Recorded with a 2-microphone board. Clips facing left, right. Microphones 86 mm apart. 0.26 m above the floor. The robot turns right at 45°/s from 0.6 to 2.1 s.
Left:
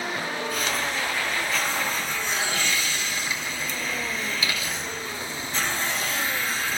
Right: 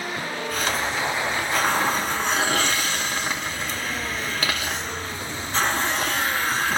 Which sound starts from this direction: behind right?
A hiss, at 0.5 s.